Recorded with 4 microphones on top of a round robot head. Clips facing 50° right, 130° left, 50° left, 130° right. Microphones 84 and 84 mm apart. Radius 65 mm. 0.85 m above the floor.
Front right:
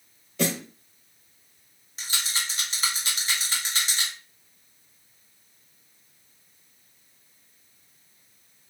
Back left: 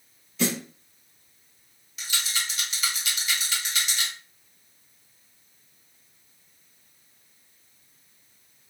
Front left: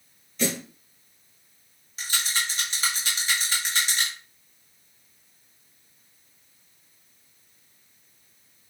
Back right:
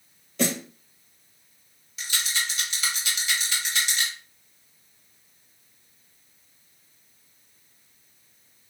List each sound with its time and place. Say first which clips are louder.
0.4 s a snare drum: even, back right 2 dB; 90° right, 1.0 m
2.0 s a rattle: even, front left 1 dB; 5° left, 1.4 m